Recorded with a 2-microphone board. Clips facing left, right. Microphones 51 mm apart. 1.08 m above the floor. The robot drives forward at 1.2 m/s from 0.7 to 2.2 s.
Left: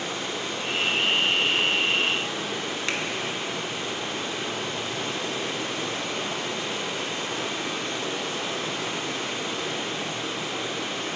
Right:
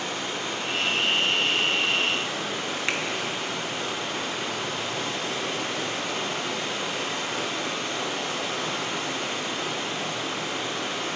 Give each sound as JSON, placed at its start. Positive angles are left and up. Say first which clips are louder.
{"t": 0.0, "sound": "running water", "louder": "even", "side_deg": -50, "distance_m": 4.5}
{"t": 2.9, "sound": "a finger snap", "louder": "right 1 dB", "side_deg": -20, "distance_m": 1.6}